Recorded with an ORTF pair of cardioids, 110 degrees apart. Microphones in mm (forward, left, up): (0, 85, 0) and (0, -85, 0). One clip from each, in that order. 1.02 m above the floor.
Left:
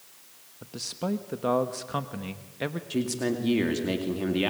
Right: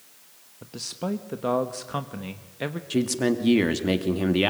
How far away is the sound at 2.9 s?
About 2 m.